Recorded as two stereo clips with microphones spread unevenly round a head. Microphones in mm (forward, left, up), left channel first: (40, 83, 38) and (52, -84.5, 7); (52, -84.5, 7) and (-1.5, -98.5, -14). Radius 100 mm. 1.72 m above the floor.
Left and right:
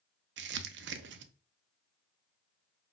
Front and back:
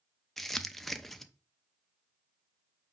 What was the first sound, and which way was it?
Crumpling, 70° right.